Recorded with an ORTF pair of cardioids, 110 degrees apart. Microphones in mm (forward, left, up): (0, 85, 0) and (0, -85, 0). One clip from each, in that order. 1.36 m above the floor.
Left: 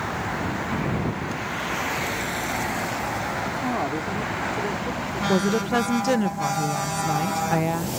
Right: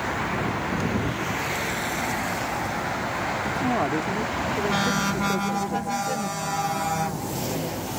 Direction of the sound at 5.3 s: 60° left.